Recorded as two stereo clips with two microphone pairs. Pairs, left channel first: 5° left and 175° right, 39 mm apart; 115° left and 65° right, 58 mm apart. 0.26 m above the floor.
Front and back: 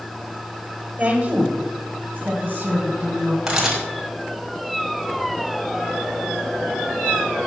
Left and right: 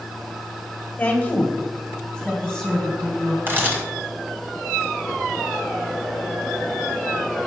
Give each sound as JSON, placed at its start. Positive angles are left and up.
{"t": 1.0, "sound": "a woman speaking", "azimuth_deg": 155, "distance_m": 1.4}
{"t": 3.5, "sound": "a camera shutter", "azimuth_deg": -100, "distance_m": 2.0}